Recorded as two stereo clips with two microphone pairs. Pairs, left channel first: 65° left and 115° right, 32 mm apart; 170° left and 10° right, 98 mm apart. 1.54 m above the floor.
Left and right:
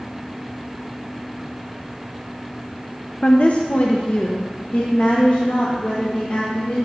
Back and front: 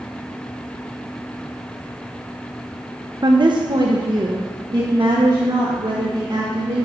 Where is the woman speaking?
25° left, 0.7 m.